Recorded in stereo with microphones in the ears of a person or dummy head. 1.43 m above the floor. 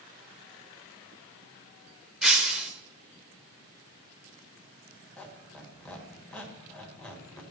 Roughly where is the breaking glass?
Centre.